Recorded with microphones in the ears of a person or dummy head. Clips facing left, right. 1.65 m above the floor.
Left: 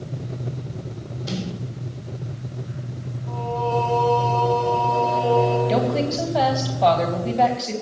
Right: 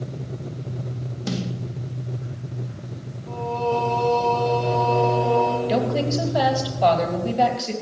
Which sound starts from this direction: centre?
A woman speaking, at 5.7 s.